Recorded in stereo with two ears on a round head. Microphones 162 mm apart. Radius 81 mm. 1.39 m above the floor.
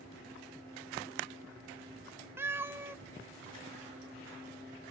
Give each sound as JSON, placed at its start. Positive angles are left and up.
{"t": 2.4, "sound": "a cat meowing", "side_deg": -15, "distance_m": 0.7}